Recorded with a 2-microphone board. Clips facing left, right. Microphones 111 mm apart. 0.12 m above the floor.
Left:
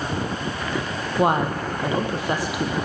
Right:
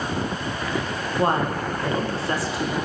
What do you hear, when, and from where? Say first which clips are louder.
1.2 s a woman speaking: left 2 dB; 15° left (ahead or behind), 3.5 m